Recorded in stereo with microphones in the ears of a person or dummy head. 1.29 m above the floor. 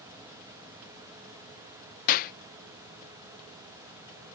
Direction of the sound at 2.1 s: 50° left (ahead or behind).